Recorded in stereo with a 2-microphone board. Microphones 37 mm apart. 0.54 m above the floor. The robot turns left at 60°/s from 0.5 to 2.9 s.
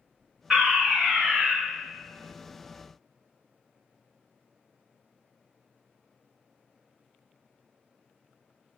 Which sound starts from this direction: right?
A fire alarm, at 0.5 s.